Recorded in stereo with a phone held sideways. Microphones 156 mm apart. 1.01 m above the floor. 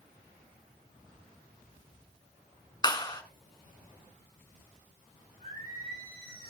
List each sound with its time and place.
2.8 s a clap: 25° left (ahead or behind), 3.5 m
5.4 s singing: 85° right, 9 m